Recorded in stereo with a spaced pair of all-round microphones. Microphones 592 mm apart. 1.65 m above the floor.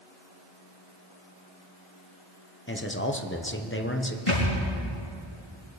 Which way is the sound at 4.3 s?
55° left (ahead or behind).